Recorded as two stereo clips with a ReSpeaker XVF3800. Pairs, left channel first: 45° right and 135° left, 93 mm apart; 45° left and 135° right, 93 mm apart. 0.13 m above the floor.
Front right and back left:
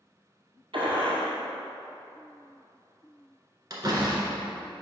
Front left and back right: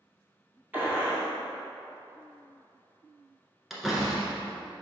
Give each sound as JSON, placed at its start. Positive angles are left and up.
{"t": 0.7, "sound": "a gunshot", "azimuth_deg": 155, "distance_m": 2.0}
{"t": 3.7, "sound": "a door slam", "azimuth_deg": 140, "distance_m": 1.5}